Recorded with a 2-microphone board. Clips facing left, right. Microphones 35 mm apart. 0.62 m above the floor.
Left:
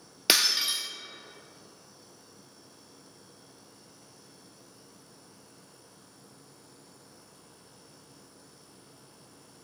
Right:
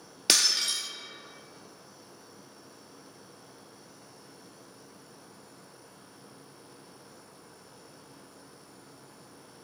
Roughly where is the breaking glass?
Centre.